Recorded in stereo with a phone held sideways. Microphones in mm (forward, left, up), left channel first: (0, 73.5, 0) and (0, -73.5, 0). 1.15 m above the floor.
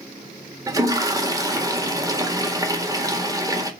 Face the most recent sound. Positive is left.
turn(degrees=-25)  # may be behind; listen again after turning